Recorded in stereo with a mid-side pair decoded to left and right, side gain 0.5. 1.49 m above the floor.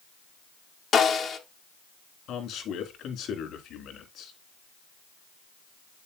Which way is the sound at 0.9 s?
45° left.